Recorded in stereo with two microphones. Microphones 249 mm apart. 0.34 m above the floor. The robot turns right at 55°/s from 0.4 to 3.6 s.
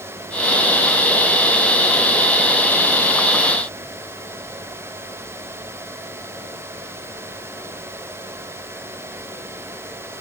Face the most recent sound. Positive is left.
No sound to turn to.